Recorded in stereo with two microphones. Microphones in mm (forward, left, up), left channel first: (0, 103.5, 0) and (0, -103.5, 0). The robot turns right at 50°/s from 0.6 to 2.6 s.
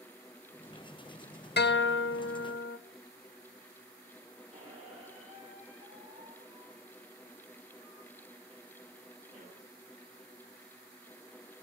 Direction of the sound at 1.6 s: 60° left.